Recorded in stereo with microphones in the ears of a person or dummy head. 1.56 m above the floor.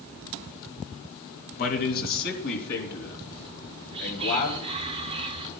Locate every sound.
1.6 s a man speaking: 50° left (ahead or behind), 2 m; by 4.6 s 60° left (ahead or behind), 5 m
3.6 s whispering: 30° right (ahead or behind), 1.4 m